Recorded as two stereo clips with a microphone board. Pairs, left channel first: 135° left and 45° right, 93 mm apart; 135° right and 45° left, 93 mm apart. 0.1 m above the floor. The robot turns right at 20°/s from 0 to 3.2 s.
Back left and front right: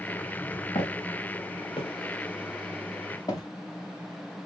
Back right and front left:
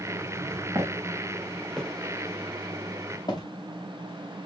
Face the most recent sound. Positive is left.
turn(degrees=-175)